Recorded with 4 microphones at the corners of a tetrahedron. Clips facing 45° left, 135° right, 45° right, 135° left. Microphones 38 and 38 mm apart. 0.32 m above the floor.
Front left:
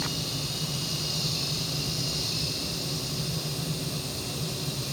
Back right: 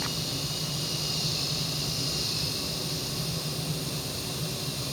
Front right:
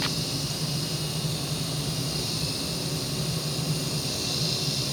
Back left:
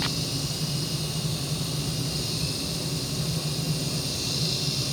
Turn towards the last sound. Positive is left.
No sound to turn to.